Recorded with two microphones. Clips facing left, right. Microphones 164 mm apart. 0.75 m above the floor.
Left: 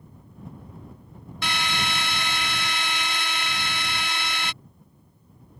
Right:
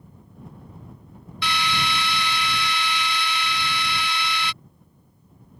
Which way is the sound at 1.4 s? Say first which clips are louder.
Right 3 dB; 45° left (ahead or behind).